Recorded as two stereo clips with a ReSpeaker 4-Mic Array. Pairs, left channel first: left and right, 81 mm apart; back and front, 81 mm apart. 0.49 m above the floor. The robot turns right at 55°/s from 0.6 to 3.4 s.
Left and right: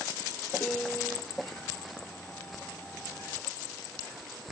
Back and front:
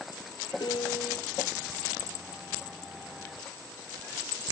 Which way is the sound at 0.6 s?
155° left.